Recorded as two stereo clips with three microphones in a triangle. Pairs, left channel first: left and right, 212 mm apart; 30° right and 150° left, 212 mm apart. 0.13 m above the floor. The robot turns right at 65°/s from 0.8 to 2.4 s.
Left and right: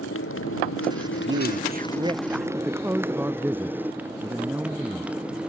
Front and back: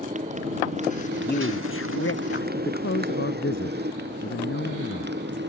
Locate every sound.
0.0 s a motorcycle: 95° left; by 5.5 s 175° right
1.1 s a man speaking: 85° right; by 2.5 s straight ahead
2.6 s a woman speaking: 10° right